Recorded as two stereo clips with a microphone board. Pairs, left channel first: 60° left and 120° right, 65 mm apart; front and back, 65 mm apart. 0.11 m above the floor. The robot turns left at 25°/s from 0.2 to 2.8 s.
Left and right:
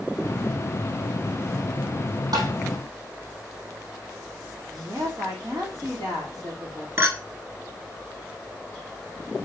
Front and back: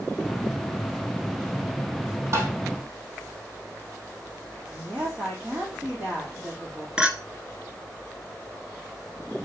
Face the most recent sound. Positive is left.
turn(degrees=-115)